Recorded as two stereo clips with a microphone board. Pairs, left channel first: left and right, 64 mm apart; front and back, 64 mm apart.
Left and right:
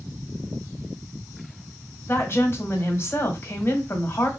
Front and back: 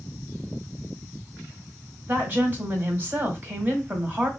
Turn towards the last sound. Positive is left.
turn(degrees=135)